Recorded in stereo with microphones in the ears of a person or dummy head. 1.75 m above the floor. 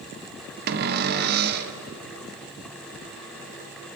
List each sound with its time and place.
0.7 s a cupboard door: 55° right (ahead or behind), 1.5 m